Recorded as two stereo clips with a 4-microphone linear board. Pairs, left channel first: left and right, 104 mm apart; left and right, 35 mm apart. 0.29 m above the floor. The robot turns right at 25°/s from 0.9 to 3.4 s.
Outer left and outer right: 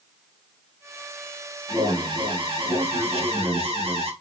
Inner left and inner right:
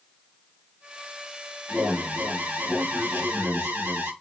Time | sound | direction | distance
1.7 | an alarm | 140° right | 4 m